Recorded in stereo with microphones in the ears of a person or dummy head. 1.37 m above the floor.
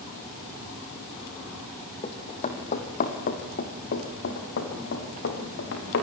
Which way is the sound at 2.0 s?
30° left (ahead or behind).